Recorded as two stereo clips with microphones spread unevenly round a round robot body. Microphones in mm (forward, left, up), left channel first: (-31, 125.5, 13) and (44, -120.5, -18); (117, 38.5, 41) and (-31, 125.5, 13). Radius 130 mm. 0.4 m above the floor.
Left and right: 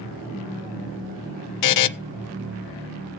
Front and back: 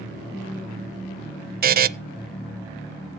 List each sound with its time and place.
1.6 s a buzzer: 125° left, 0.6 m